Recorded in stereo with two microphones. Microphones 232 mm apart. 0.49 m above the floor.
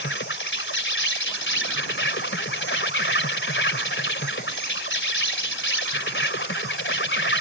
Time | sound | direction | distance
0.0 | an insect | 60° left (ahead or behind) | ?